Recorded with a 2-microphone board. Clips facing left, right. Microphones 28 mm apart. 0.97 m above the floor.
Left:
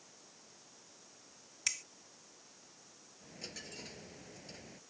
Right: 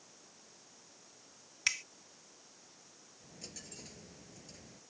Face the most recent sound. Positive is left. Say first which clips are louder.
# left 4 dB
turn(degrees=25)  # may be behind; listen again after turning